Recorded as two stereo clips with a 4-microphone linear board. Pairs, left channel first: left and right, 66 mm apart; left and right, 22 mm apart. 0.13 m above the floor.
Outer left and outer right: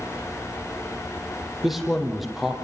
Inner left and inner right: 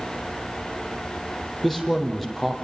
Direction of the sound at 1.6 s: 5° right (ahead or behind).